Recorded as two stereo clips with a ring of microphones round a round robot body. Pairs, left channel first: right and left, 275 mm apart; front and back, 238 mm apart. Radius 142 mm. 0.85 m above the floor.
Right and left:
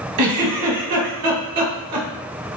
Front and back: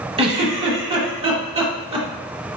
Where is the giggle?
115° left, 1.0 m.